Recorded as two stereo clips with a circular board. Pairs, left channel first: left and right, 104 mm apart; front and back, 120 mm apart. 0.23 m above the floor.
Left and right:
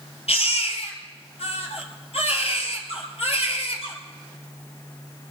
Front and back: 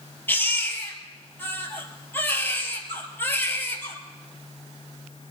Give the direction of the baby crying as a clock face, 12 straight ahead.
10 o'clock.